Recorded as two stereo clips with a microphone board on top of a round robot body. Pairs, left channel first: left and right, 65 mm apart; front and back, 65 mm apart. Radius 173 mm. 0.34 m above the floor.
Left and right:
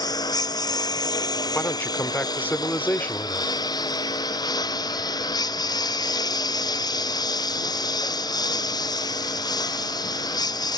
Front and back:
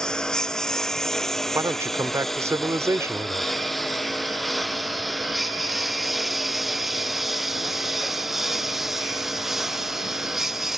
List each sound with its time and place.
0.0 s a lawn mower: 80° left; by 10.8 s 95° left
1.6 s a man speaking: 150° left